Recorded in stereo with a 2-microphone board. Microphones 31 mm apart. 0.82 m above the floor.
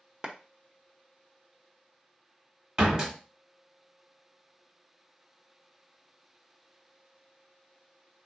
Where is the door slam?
35° right (ahead or behind), 1.2 m.